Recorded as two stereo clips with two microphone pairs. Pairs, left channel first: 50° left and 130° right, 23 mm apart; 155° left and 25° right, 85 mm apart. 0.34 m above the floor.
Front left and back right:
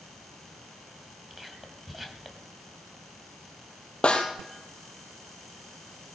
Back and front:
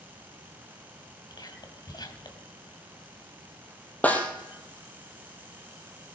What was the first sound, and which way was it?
Whispering, 150° left.